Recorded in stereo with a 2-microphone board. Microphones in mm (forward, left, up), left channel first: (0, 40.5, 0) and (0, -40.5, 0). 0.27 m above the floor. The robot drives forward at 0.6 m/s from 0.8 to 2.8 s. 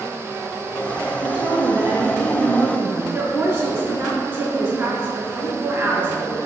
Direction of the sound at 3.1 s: 35° right (ahead or behind).